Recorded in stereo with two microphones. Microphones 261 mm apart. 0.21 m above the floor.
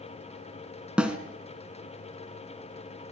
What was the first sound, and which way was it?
A snare drum, 5° right (ahead or behind).